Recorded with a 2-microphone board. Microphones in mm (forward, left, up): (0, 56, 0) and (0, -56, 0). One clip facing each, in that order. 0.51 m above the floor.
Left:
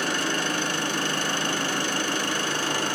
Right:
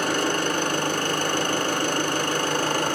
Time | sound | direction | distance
0.0 | an engine running | 50° right (ahead or behind) | 1.1 m